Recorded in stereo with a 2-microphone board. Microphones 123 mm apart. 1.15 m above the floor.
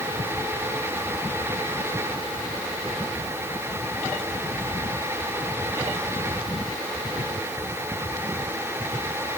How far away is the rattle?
No rattle in this recording.